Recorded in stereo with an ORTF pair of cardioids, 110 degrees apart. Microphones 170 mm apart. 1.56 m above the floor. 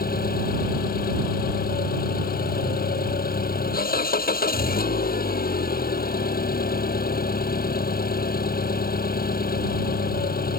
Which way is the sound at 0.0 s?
60° left.